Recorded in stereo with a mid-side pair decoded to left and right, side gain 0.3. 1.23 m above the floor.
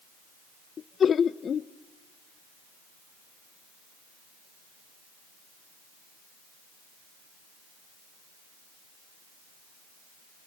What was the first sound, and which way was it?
Laughter, 70° left.